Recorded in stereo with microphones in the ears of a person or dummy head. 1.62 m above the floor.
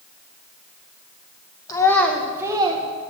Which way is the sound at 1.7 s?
20° left (ahead or behind).